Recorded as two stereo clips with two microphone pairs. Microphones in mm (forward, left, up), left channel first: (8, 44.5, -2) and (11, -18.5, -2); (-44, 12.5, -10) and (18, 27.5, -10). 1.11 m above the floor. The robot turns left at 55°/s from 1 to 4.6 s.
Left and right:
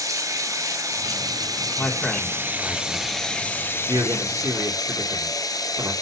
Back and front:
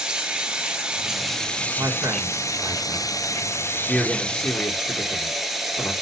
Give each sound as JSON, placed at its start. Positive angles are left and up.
{"t": 0.0, "sound": "running water", "azimuth_deg": -60, "distance_m": 3.0}
{"t": 1.8, "sound": "a man speaking", "azimuth_deg": 35, "distance_m": 3.5}